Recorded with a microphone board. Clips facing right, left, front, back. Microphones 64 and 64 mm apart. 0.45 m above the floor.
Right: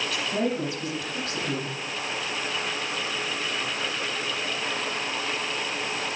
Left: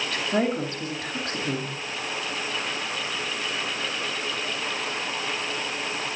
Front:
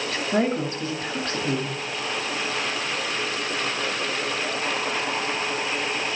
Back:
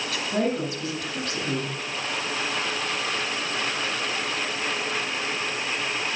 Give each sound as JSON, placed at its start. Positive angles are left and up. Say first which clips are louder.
{"t": 0.1, "sound": "a woman speaking", "louder": "left 3 dB, front 2 dB", "azimuth_deg": 50, "distance_m": 2.5}